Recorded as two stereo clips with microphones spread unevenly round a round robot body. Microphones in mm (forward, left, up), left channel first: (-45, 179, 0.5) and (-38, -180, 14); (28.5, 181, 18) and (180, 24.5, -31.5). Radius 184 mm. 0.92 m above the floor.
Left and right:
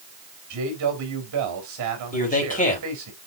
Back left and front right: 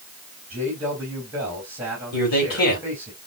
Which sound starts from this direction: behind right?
A man speaking, at 0.5 s.